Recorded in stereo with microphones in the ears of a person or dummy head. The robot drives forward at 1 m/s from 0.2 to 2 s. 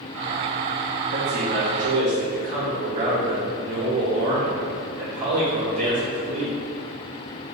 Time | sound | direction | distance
1.1 | a man speaking | 55° right (ahead or behind) | 1.9 m